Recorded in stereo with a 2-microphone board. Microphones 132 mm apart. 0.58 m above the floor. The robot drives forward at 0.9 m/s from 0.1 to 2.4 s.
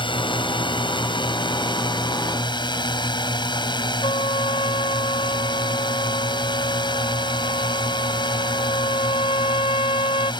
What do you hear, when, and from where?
0.0 s a drone: 35° left (ahead or behind)
4.0 s a trumpet: 40° left (ahead or behind)